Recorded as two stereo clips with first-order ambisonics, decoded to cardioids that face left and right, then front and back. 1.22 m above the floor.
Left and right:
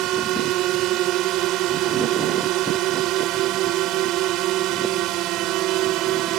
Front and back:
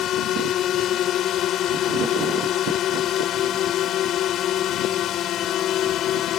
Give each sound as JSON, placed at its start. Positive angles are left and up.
{"t": 0.0, "sound": "a drone", "azimuth_deg": -50}